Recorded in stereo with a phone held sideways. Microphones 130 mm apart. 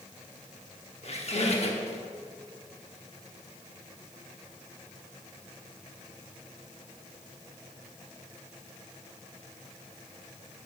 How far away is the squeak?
About 0.9 m.